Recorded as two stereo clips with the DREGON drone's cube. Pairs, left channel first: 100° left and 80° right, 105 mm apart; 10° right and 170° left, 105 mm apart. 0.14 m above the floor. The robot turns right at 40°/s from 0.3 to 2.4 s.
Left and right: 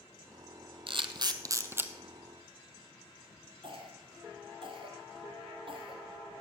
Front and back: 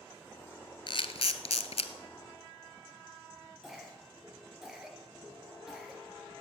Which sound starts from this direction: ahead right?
A camera shutter, at 0.9 s.